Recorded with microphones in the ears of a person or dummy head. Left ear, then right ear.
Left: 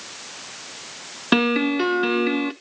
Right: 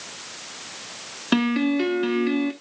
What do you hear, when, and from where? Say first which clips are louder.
1.3 s a piano: left 3 dB; 20° left (ahead or behind), 0.8 m